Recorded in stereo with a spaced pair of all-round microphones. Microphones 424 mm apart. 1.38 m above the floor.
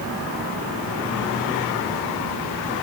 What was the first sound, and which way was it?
Only background noise.